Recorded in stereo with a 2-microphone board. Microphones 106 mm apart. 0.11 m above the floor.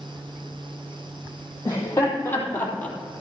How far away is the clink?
I don't hear a clink.